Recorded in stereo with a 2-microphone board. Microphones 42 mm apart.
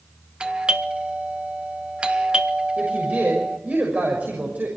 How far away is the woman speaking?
About 6 m.